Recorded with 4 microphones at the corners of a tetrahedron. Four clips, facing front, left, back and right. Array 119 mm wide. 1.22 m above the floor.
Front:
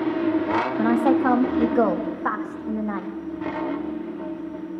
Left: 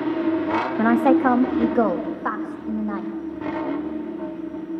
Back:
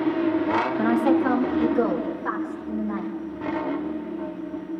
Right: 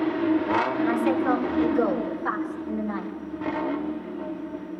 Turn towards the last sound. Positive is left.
turn(degrees=30)